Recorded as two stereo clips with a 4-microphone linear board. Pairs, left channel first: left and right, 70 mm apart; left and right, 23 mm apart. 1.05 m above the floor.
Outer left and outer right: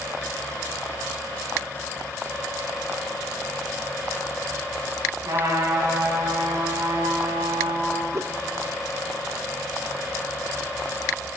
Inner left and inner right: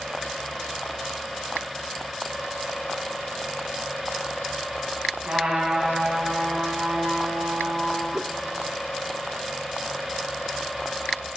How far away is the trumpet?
About 6 m.